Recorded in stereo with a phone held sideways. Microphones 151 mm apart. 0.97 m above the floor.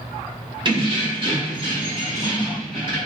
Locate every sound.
0.7 s keys jangling: 30° right (ahead or behind), 1.1 m; by 3.0 s 35° right (ahead or behind), 3 m